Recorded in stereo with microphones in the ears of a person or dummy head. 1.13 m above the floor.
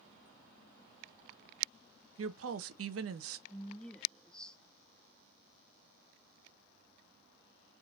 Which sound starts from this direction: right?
A woman speaking, at 2.2 s.